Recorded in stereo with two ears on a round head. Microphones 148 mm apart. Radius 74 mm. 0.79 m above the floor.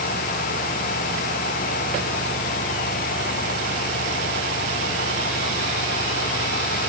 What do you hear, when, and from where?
Only background noise.